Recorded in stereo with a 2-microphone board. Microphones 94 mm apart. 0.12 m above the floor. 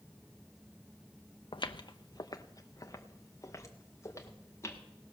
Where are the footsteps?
65° left (ahead or behind), 0.5 m; by 4.8 s 30° left (ahead or behind), 2 m.